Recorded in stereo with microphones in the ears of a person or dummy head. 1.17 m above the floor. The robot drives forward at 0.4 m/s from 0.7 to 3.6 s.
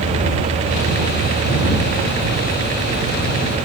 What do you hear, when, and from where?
Only background noise.